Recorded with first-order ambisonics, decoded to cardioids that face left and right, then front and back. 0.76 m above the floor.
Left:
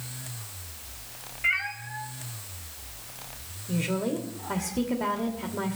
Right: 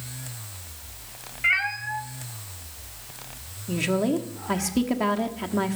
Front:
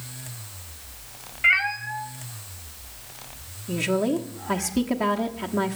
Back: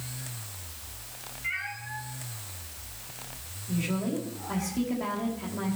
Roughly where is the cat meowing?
Ahead.